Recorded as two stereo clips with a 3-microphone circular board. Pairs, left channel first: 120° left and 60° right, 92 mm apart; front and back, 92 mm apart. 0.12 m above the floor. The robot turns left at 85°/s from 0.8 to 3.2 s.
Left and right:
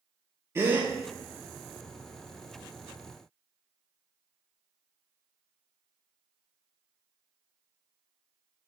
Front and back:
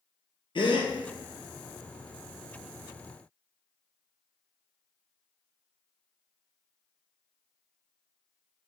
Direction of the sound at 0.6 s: Straight ahead.